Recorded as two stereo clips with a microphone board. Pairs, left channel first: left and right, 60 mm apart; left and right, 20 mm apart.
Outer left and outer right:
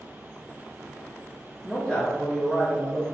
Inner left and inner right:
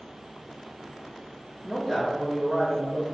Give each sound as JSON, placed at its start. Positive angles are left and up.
{"t": 1.6, "sound": "a man speaking", "side_deg": 15, "distance_m": 0.8}